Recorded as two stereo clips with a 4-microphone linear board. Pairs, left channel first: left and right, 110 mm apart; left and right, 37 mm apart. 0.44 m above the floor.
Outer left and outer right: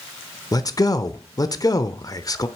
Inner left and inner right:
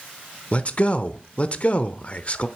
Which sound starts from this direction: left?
A man speaking, at 0.5 s.